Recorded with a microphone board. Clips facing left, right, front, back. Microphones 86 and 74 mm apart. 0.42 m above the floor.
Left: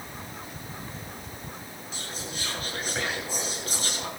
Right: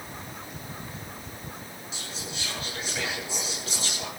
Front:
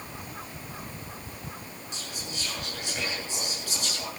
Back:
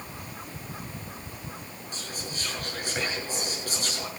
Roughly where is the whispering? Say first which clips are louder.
Left 2 dB, back 2 dB; behind left.